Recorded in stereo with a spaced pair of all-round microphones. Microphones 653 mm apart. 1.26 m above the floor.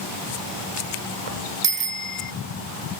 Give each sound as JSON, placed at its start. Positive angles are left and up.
{"t": 1.6, "sound": "a bicycle bell", "side_deg": -65}